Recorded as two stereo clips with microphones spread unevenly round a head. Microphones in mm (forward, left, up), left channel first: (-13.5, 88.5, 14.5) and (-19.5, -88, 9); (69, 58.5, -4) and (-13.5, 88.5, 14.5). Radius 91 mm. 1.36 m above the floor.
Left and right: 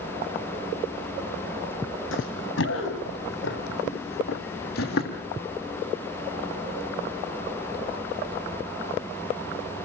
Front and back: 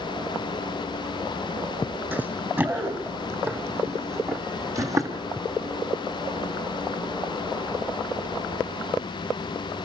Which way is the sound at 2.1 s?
95° left.